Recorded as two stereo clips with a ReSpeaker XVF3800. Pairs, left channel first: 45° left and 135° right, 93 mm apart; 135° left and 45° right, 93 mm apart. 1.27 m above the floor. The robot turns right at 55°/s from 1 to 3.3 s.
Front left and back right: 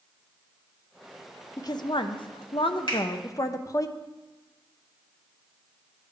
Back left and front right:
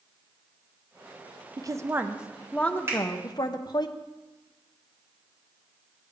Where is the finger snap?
15° left, 3.5 m; by 3.0 s 25° left, 3.5 m.